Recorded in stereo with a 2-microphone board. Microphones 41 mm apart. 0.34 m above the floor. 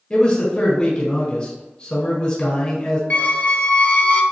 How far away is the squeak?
About 0.5 m.